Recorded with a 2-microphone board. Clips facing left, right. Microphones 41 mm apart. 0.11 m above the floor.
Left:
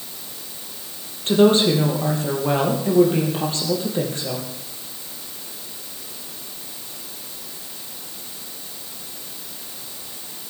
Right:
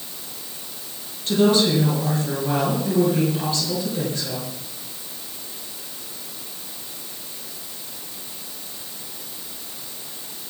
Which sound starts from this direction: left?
A woman speaking, at 1.3 s.